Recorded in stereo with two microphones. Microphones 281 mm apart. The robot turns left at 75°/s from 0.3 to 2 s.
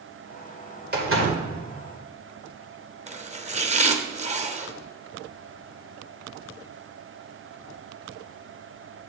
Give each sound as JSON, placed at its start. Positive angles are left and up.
{"t": 0.9, "sound": "a door slam", "azimuth_deg": -35, "distance_m": 2.0}
{"t": 3.1, "sound": "chopping", "side_deg": -25, "distance_m": 0.7}